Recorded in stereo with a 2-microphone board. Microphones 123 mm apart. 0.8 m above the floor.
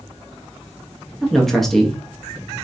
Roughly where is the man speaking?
Centre.